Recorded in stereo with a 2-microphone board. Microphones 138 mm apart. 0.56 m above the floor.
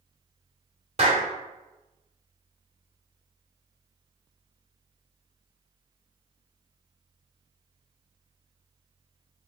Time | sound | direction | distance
1.0 | a clap | 45° right (ahead or behind) | 1.6 m